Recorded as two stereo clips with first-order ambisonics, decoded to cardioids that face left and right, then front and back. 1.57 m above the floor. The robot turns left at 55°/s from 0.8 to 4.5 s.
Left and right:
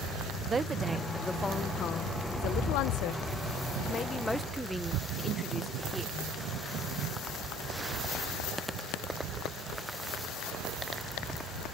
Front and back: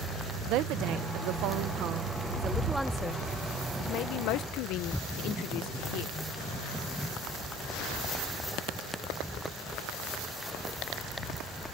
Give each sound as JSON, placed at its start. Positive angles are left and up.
{"t": 0.5, "sound": "a woman speaking", "azimuth_deg": -160}